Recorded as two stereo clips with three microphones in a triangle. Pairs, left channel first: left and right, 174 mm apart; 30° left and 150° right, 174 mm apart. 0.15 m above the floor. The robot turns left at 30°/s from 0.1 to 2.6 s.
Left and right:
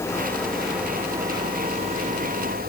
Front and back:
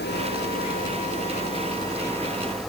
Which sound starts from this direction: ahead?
An engine running, at 0.0 s.